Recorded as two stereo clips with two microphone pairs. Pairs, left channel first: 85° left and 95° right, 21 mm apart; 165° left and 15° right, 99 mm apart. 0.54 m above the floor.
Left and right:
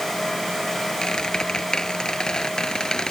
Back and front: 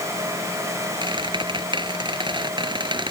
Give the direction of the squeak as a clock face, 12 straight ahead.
11 o'clock.